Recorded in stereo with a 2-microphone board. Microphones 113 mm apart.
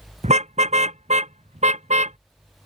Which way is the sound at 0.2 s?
80° right.